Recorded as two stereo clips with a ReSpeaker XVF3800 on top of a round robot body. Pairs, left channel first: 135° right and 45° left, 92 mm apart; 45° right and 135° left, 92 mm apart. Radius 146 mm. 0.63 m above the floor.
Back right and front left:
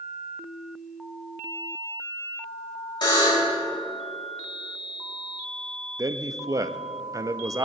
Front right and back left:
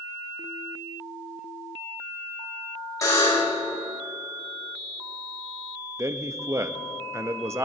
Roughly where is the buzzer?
Right.